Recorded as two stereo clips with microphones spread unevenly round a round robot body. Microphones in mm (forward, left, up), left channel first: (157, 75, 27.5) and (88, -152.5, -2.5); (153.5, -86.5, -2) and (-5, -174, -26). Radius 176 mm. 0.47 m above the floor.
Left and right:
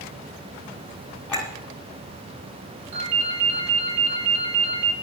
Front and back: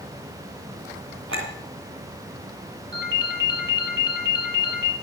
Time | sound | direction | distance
1.3 | a clink | 160° left | 2.5 m
2.9 | a ringtone | 135° right | 5.5 m